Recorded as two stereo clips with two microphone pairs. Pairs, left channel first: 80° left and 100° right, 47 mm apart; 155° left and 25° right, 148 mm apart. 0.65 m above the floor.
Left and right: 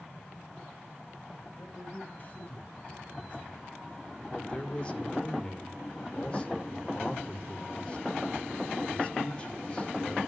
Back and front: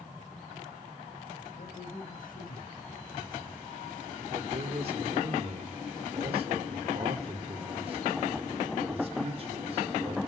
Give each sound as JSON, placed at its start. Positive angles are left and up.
{"t": 1.6, "sound": "a man speaking", "azimuth_deg": 135, "distance_m": 3.5}
{"t": 4.3, "sound": "a man speaking", "azimuth_deg": 20, "distance_m": 2.0}